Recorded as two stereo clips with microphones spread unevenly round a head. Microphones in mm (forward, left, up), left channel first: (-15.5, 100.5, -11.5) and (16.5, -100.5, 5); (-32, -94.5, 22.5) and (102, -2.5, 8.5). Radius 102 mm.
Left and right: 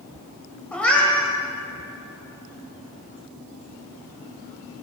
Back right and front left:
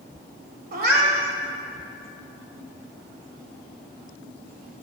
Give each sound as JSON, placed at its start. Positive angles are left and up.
{"t": 0.7, "sound": "a cat meowing", "azimuth_deg": 10, "distance_m": 1.8}